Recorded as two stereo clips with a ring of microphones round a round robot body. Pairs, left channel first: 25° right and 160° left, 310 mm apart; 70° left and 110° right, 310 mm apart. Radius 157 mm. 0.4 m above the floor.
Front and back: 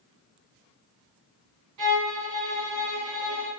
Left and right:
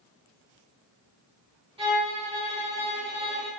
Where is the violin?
Straight behind, 1.2 m.